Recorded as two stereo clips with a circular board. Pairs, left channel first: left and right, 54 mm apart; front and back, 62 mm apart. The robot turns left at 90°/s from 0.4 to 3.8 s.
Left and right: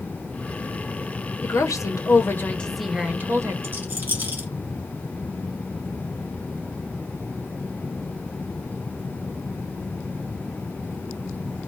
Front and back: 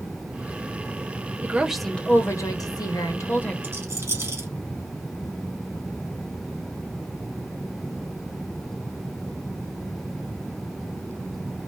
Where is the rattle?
130° right, 2 m; by 4.5 s 145° right, 2 m.